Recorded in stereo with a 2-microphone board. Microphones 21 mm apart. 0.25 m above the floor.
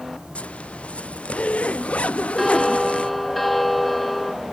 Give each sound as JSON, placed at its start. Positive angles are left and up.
{"t": 0.3, "sound": "a zipper", "side_deg": 85}
{"t": 2.4, "sound": "a bell", "side_deg": 10}